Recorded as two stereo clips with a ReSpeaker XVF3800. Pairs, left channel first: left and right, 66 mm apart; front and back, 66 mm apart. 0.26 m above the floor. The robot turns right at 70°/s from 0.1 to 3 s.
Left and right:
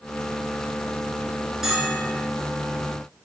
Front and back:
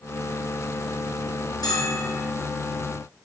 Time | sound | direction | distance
1.6 | a bell | 5° right | 0.9 m